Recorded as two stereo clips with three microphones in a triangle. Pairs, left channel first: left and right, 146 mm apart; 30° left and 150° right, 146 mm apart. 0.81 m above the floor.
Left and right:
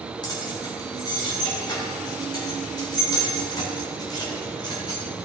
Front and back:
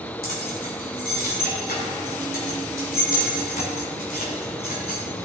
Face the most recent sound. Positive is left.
turn(degrees=30)